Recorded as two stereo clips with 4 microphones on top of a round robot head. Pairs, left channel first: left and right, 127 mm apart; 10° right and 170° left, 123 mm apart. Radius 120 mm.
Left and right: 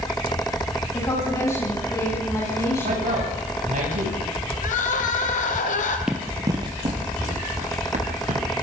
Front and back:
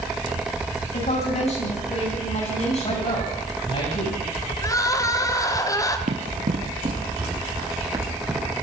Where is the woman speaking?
20° left, 10 m.